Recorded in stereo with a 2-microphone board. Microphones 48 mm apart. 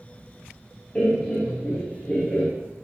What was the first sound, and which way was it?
Laughter, 30° left (ahead or behind).